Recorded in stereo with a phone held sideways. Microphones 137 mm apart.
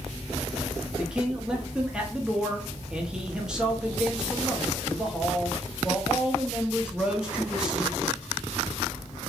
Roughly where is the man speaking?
Centre.